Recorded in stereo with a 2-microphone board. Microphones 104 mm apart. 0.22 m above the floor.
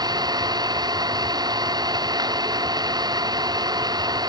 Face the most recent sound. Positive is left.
turn(degrees=-40)  # may be behind; listen again after turning